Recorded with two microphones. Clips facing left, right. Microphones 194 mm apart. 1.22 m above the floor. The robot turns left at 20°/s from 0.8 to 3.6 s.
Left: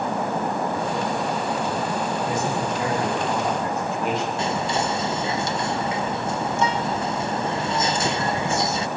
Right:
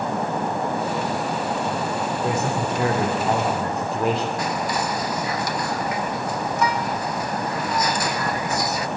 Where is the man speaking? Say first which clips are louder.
Right 1 dB; 80° right, 3 m; by 4.3 s 50° right (ahead or behind), 3 m.